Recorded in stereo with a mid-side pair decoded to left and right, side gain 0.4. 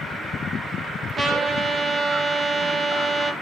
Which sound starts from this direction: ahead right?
A trumpet, at 1.2 s.